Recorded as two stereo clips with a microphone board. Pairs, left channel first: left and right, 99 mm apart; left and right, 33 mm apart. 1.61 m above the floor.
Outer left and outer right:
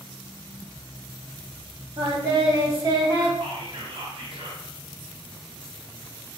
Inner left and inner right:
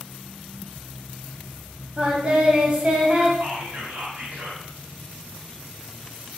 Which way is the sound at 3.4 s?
60° right (ahead or behind).